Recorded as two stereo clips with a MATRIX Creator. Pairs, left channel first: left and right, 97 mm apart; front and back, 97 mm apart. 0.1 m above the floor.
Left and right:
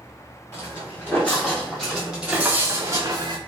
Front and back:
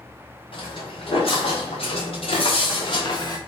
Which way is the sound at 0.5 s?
25° left.